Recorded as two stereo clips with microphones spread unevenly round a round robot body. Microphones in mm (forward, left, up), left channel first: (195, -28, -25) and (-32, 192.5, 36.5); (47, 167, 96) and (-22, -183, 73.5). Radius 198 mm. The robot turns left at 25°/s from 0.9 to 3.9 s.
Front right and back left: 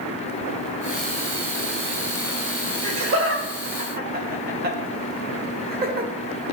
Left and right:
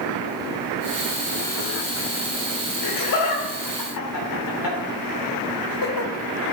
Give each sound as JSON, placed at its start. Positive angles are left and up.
{"t": 2.8, "sound": "laughter", "azimuth_deg": 100, "distance_m": 1.8}